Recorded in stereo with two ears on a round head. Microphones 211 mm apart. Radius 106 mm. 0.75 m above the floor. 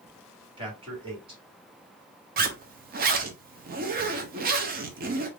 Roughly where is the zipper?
Right.